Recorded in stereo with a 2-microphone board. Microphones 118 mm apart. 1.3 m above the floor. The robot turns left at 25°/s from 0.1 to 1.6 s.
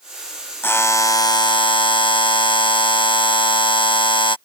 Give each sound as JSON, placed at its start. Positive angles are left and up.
{"t": 0.6, "sound": "a buzzer", "side_deg": 15}